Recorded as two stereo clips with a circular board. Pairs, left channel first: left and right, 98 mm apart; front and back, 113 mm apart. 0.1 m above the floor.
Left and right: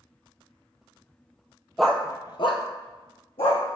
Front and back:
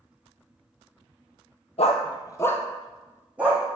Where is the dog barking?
Straight ahead, 0.8 m; by 3.6 s 105° left, 2 m.